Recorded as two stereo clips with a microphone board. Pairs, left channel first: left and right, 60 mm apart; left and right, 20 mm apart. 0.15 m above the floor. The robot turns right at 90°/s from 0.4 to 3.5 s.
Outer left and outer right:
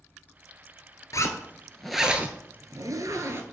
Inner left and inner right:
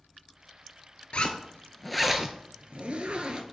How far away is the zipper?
About 0.7 m.